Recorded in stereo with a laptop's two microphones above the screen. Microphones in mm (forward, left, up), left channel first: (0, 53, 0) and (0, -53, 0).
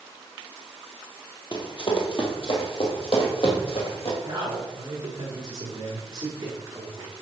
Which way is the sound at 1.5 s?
45° left (ahead or behind).